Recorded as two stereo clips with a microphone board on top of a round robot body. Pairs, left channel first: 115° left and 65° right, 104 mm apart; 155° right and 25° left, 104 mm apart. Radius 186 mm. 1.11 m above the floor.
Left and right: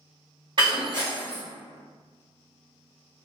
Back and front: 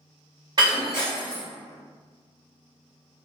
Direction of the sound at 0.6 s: 25° right.